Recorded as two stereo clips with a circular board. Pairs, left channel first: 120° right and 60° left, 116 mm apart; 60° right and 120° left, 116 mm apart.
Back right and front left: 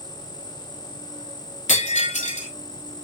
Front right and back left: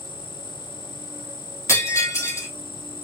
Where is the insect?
70° left, 1.0 m.